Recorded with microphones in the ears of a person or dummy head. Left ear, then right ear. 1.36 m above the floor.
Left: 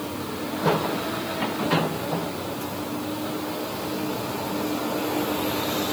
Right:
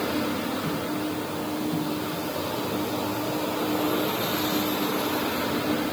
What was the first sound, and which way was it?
Only background noise.